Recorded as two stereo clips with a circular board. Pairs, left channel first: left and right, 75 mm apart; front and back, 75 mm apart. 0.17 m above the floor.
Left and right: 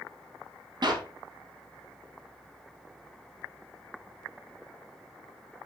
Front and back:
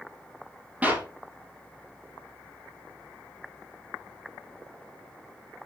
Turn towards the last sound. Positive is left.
turn(degrees=-110)